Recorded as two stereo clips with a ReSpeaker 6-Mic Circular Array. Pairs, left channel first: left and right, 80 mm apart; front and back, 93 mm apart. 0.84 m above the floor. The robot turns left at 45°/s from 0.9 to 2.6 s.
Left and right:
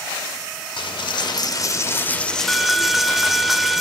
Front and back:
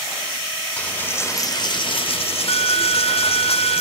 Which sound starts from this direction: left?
A dropped coin, at 0.8 s.